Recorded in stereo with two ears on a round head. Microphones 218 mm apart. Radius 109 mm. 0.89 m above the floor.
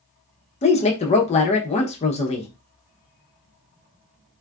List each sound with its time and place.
0.6 s a woman speaking: 25° left (ahead or behind), 0.5 m